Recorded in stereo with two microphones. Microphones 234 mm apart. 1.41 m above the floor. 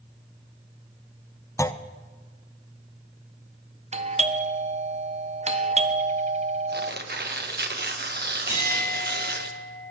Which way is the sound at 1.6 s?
10° left (ahead or behind).